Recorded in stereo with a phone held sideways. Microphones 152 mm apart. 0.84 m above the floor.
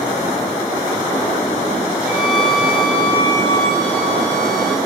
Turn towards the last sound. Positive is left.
turn(degrees=-65)  # may be behind; listen again after turning